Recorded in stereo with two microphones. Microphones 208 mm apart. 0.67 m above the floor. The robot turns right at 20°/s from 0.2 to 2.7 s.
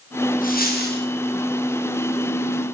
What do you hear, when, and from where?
0.4 s a dropped coin: 45° left (ahead or behind), 9.5 m; by 1.0 s 55° left (ahead or behind), 9.5 m